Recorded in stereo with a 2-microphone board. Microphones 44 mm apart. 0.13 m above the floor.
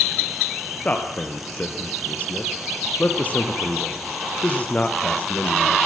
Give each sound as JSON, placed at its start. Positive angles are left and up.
{"t": 0.8, "sound": "a man speaking", "side_deg": 35, "distance_m": 2.5}